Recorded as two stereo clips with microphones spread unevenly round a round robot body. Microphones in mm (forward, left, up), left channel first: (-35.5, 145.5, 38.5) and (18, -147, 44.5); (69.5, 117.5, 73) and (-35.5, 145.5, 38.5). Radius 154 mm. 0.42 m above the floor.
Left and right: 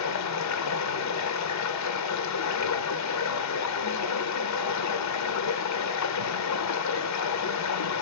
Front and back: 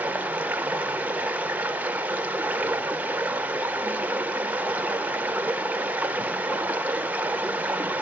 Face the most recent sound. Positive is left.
turn(degrees=105)